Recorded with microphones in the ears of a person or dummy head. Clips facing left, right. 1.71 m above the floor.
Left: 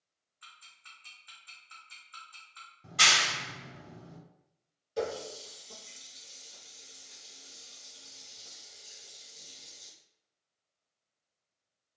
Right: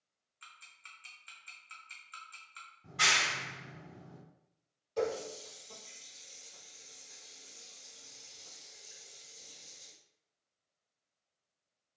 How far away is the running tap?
About 1.4 m.